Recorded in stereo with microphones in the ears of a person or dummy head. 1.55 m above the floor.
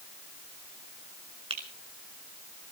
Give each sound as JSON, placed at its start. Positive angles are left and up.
{"t": 1.5, "sound": "a finger snap", "side_deg": -30, "distance_m": 4.5}